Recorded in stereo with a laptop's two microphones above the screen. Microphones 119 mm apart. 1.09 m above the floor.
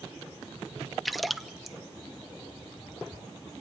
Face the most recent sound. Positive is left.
turn(degrees=0)  # may be behind; listen again after turning